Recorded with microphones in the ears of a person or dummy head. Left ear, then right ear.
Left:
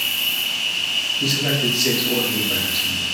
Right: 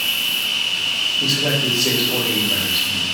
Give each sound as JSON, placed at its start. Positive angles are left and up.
{"t": 0.0, "sound": "an insect", "side_deg": 10, "distance_m": 1.3}
{"t": 1.2, "sound": "a man speaking", "side_deg": 30, "distance_m": 1.8}